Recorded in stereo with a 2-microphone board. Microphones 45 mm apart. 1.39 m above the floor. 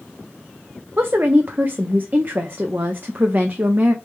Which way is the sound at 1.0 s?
45° right (ahead or behind).